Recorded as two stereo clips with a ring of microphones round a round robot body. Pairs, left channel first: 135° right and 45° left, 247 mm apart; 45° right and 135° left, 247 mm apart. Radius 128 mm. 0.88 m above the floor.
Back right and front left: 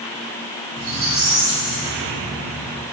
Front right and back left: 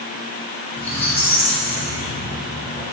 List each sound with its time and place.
0.8 s a squeak: 35° left, 0.9 m